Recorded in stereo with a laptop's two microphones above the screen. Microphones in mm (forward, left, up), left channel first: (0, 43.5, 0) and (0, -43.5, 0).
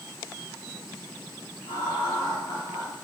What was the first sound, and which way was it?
Laughter, 75° left (ahead or behind).